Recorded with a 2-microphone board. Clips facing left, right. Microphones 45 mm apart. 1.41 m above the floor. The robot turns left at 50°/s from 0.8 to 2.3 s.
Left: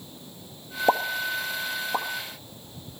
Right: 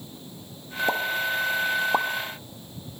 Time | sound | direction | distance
0.9 | a pop | 30° left (ahead or behind) | 0.8 m